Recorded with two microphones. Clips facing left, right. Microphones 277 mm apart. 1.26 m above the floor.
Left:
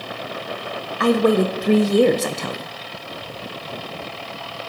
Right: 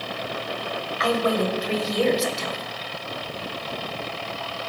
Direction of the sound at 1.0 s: 65° left (ahead or behind).